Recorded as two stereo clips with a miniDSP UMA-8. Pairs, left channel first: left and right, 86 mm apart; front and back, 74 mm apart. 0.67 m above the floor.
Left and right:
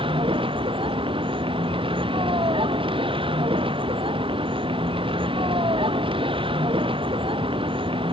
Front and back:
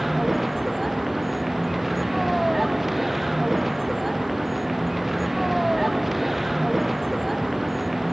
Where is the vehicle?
90° right.